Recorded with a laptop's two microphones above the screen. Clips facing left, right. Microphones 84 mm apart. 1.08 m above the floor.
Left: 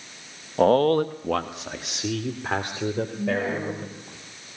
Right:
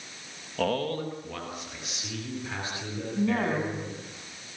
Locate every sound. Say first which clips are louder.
0.6 s a man speaking: left 10 dB; 30° left (ahead or behind), 1.0 m; by 4.2 s 55° left (ahead or behind), 5 m
3.2 s a woman speaking: right 5 dB; 55° right (ahead or behind), 8 m